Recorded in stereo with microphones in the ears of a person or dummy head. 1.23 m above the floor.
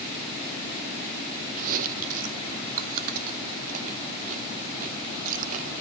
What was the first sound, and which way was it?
Chewing, 45° right (ahead or behind).